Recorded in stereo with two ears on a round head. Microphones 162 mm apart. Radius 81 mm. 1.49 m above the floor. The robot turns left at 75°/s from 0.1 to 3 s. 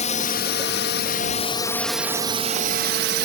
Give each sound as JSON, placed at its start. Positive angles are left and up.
{"t": 0.0, "sound": "a drone", "side_deg": 40}